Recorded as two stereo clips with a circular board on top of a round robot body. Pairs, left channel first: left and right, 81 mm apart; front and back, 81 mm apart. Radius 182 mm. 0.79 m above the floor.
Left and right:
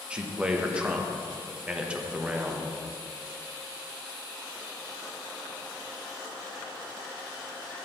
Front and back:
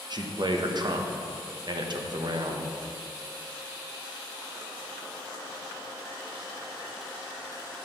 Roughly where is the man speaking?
Behind.